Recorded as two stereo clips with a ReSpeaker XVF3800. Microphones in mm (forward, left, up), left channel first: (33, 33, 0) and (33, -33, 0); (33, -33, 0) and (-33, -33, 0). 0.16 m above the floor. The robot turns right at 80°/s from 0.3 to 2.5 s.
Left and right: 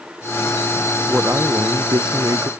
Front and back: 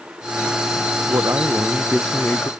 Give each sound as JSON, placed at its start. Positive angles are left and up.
{"t": 1.1, "sound": "a man speaking", "azimuth_deg": -160}